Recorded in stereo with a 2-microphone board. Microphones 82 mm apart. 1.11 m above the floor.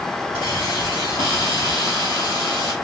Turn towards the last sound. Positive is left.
turn(degrees=70)  # may be behind; listen again after turning